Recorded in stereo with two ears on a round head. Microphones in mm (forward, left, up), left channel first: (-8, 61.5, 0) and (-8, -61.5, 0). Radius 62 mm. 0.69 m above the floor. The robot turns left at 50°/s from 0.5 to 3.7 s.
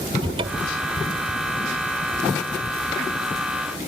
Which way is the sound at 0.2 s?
40° right (ahead or behind).